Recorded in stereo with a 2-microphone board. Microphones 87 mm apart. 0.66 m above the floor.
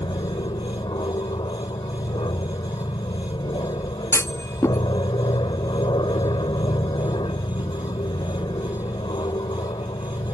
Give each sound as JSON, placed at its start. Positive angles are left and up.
{"t": 0.0, "sound": "an aircraft", "side_deg": 60}
{"t": 4.1, "sound": "a clunk", "side_deg": 30}